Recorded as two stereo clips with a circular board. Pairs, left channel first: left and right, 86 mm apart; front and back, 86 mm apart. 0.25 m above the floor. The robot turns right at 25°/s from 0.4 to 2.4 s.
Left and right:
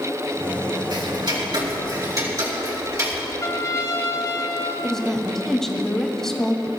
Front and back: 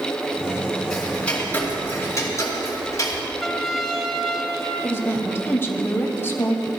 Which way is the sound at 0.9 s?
85° right.